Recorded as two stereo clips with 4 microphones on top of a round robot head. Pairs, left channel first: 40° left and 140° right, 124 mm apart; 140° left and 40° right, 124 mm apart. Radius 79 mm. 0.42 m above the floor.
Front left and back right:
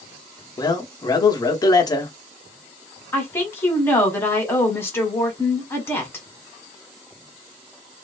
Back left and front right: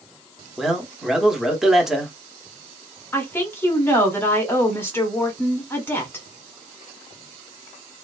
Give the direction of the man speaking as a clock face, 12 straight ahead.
10 o'clock.